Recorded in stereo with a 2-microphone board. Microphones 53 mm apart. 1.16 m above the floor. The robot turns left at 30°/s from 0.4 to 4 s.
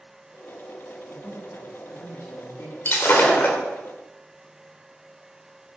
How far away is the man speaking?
About 1.9 m.